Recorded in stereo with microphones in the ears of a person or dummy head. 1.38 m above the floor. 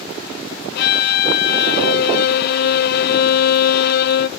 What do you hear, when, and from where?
0.8 s a violin: 60° left (ahead or behind), 0.9 m